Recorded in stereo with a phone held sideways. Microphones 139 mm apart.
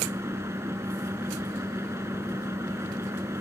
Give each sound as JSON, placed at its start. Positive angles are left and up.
{"t": 0.0, "sound": "a fan", "side_deg": -20}